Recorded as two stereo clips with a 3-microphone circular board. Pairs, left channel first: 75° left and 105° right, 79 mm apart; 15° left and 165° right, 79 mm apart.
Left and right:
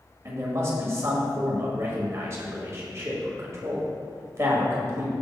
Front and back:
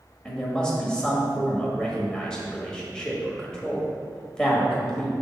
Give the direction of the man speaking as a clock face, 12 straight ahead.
2 o'clock.